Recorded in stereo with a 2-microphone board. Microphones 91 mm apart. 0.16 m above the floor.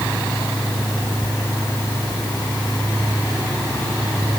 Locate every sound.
Only background noise.